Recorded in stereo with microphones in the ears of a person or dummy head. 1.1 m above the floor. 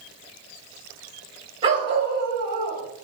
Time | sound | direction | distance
1.6 | a dog barking | 20° right (ahead or behind) | 1.5 m